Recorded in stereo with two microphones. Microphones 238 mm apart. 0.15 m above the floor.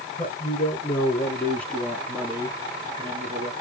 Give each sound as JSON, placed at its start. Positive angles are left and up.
{"t": 0.2, "sound": "a man speaking", "side_deg": 35, "distance_m": 2.0}